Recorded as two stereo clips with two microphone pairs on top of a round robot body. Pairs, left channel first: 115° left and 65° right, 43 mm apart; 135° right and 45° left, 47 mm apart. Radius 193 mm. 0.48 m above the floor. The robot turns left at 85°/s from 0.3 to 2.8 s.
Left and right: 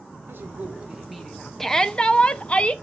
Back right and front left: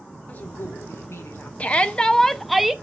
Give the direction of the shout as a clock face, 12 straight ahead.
6 o'clock.